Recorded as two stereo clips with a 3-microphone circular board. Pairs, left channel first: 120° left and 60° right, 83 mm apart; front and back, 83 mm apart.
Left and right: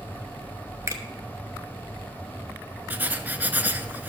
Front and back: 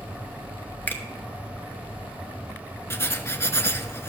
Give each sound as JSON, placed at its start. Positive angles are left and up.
{"t": 0.9, "sound": "a finger snap", "azimuth_deg": -50, "distance_m": 1.0}
{"t": 2.9, "sound": "writing", "azimuth_deg": -15, "distance_m": 0.6}